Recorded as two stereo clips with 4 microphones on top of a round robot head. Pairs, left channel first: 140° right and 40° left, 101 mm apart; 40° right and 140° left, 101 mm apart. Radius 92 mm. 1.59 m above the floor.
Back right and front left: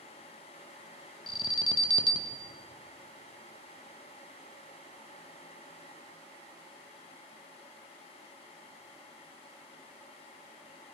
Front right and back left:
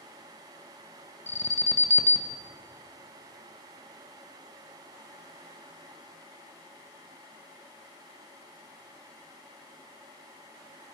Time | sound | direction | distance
1.3 | an alarm | 105° right | 1.0 m